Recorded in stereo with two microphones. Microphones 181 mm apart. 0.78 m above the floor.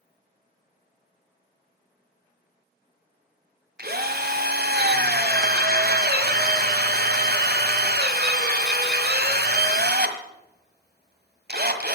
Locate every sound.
3.8 s a drill: 65° right (ahead or behind), 1.7 m